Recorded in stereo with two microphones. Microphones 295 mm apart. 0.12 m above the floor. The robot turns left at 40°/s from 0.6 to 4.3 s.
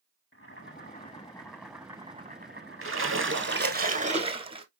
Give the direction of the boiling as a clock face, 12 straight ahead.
10 o'clock.